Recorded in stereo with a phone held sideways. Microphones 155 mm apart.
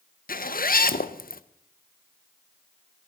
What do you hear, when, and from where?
0.3 s a zipper: 70° left (ahead or behind), 0.6 m